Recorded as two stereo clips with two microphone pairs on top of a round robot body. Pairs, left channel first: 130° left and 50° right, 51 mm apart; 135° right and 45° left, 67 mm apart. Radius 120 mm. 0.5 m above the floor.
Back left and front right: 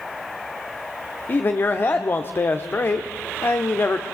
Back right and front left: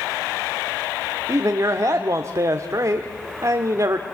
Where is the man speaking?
90° left, 1.5 m.